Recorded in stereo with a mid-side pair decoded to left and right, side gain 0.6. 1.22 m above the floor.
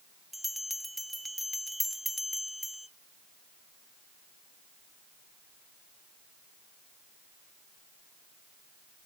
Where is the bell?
Straight ahead, 0.8 m.